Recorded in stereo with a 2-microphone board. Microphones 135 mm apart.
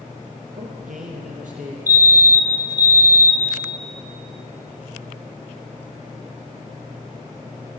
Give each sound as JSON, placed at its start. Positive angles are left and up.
{"t": 0.5, "sound": "a man speaking", "side_deg": -65, "distance_m": 5.0}
{"t": 1.9, "sound": "a fire alarm", "side_deg": -15, "distance_m": 2.5}